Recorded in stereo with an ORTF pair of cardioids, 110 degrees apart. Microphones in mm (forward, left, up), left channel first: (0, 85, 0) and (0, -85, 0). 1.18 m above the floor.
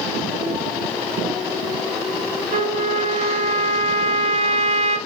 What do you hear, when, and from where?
2.5 s a trumpet: 35° right, 1.0 m